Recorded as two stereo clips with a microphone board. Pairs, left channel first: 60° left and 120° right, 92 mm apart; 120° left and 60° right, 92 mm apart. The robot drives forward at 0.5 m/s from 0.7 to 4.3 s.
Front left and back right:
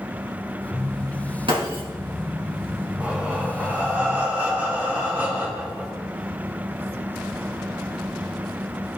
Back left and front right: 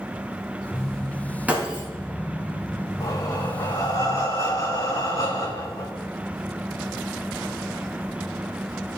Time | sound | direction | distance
1.5 | breaking glass | 135° right | 3.5 m
3.0 | breathing | 170° left | 2 m